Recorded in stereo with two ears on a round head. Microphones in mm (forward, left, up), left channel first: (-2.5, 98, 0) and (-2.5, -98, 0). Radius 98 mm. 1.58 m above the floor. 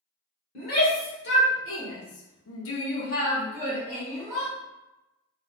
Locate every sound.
0.6 s a shout: 45° left (ahead or behind), 1.4 m; by 4.5 s 5° left (ahead or behind), 1.3 m